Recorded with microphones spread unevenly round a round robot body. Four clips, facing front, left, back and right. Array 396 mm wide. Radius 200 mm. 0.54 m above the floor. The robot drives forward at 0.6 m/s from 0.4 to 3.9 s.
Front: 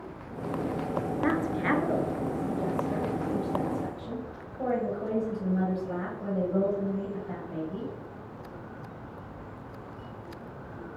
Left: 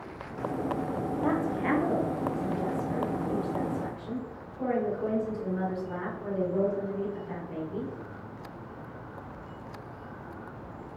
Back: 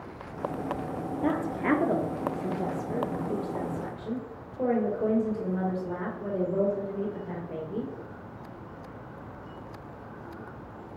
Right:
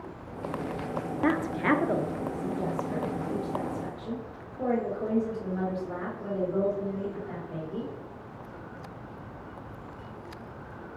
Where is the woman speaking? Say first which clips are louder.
Right 3 dB, back 2 dB; 115° right, 0.9 m; by 7.9 s 165° right, 2.0 m.